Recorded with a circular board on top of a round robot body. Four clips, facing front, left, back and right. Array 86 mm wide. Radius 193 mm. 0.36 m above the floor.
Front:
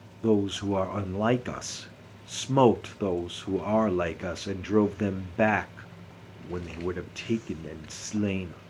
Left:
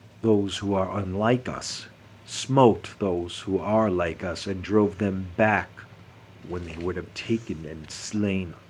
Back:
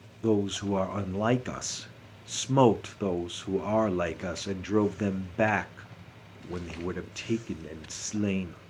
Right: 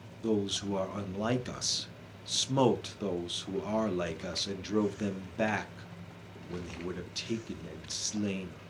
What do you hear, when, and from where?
0.2 s a man speaking: 85° left, 1.2 m